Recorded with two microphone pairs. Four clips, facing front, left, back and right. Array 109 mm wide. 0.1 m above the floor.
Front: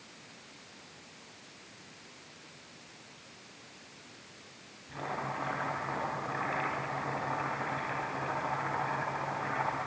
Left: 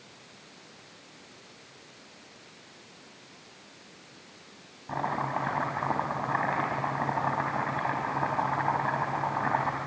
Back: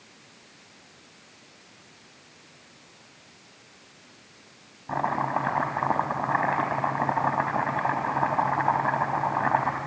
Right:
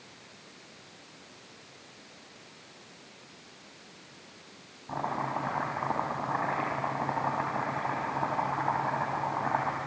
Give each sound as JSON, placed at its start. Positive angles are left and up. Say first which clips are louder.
{"t": 4.9, "sound": "chopping", "louder": "left 2 dB, back 11 dB", "azimuth_deg": 180, "distance_m": 4.0}